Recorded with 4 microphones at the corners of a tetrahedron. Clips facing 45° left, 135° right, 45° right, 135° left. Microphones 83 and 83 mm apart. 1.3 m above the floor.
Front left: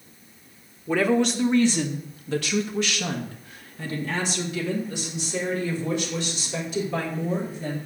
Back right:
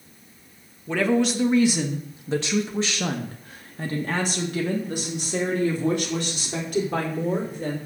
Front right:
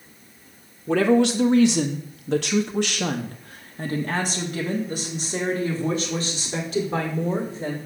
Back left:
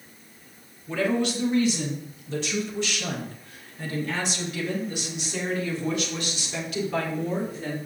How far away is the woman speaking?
About 1.3 m.